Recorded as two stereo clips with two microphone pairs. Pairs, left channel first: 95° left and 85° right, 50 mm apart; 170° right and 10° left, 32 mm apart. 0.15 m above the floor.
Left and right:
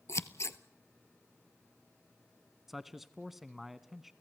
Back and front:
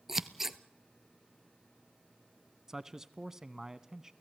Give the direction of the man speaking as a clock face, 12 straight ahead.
12 o'clock.